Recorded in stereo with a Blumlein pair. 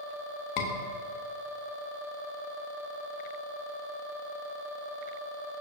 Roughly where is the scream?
Ahead left.